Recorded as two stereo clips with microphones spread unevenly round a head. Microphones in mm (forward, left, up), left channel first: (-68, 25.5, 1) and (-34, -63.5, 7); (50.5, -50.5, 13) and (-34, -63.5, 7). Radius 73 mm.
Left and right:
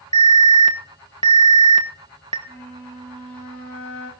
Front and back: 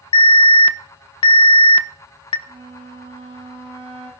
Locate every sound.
0.1 s an alarm: 10° right, 1.0 m
2.5 s a flute: 175° right, 9.5 m